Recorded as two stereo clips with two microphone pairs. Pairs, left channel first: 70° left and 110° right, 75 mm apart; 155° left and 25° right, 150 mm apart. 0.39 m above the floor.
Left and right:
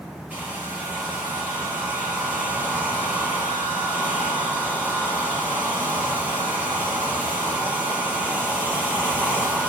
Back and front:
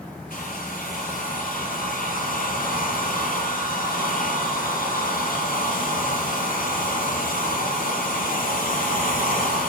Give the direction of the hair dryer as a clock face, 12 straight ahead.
6 o'clock.